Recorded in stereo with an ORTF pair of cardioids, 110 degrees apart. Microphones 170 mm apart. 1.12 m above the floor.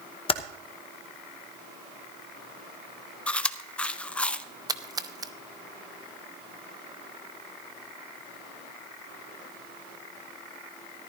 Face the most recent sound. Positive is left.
turn(degrees=-20)